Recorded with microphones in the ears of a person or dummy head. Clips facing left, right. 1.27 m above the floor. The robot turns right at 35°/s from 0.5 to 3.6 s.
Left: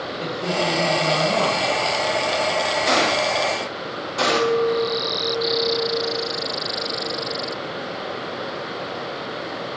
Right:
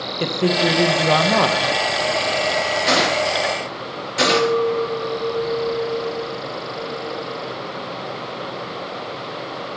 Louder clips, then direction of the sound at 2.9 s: Right 1 dB; 5° right (ahead or behind).